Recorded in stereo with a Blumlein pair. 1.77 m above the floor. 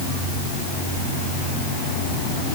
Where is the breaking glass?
I don't hear breaking glass.